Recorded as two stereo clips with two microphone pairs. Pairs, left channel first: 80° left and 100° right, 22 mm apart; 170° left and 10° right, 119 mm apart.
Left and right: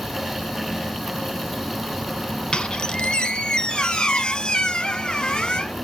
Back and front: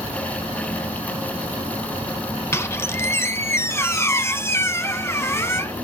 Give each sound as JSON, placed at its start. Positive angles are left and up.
{"t": 2.5, "sound": "a squeak", "azimuth_deg": 110, "distance_m": 0.6}